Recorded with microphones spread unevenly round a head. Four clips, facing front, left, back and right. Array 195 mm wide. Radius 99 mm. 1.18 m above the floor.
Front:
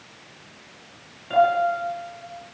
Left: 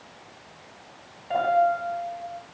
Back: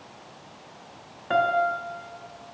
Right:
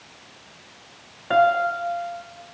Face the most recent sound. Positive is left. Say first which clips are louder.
# right 3 dB, front 4 dB
turn(degrees=-110)